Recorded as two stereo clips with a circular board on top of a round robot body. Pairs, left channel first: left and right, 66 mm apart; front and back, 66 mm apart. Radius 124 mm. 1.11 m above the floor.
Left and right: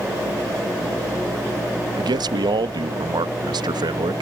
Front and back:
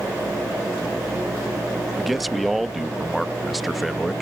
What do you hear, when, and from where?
2.0 s a man speaking: 90° right